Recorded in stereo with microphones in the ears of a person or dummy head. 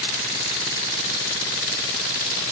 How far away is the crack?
No crack in this recording.